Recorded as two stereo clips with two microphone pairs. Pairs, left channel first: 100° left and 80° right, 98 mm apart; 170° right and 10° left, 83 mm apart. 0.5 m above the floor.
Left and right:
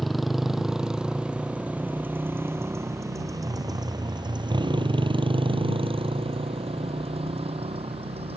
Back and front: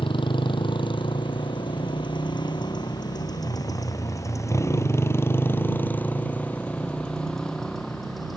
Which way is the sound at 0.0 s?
170° right.